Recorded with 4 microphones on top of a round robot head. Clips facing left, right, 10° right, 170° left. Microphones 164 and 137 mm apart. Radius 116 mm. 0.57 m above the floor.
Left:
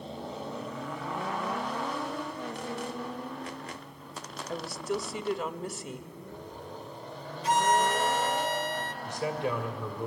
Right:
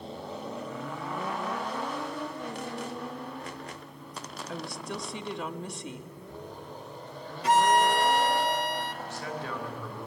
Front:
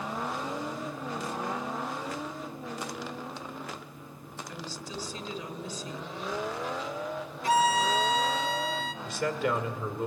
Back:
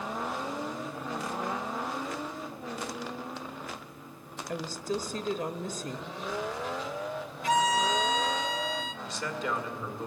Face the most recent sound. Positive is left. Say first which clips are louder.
# left 5 dB, front 6 dB
turn(degrees=15)